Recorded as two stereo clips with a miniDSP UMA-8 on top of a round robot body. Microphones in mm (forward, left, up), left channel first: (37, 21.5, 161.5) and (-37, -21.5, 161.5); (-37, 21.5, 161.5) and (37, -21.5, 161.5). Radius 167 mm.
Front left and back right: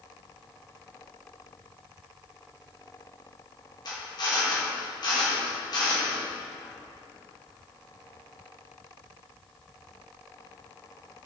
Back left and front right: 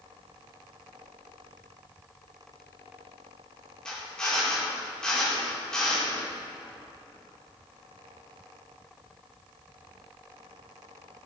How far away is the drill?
About 4.5 m.